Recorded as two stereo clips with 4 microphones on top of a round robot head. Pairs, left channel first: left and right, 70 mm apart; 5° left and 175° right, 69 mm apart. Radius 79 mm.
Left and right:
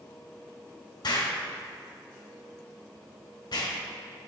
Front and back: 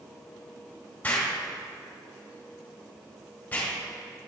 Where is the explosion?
70° left, 1.7 m.